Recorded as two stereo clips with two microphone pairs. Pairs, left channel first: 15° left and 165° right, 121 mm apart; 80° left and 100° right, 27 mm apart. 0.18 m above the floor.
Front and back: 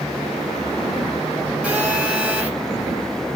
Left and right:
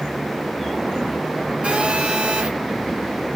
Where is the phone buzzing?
90° right, 2.5 m.